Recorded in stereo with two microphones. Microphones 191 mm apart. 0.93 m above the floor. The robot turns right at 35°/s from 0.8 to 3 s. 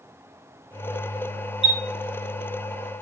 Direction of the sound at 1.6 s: 30° left (ahead or behind).